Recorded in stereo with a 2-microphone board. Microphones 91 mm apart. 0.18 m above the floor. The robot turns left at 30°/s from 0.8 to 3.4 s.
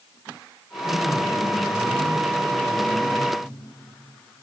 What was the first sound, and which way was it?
A man speaking, 155° left.